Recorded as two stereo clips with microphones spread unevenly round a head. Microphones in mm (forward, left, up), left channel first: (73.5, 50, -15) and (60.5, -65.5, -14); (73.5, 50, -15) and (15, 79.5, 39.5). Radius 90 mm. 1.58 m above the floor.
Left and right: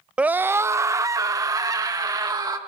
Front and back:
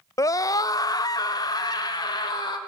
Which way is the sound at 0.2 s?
15° right.